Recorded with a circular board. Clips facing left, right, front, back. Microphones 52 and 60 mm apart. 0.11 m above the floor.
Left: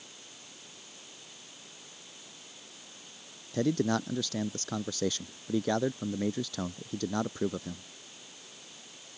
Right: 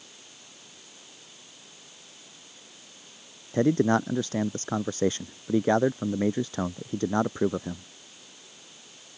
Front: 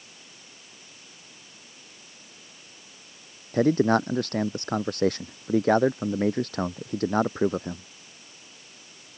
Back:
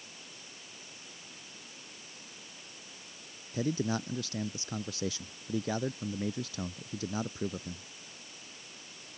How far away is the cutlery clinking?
No cutlery clinking in this recording.